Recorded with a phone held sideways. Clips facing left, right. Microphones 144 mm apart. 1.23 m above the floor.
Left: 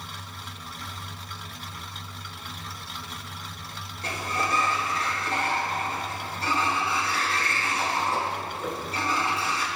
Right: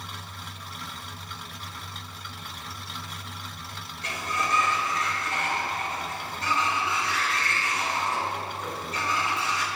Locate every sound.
4.0 s a sliding door: 30° left (ahead or behind), 1.0 m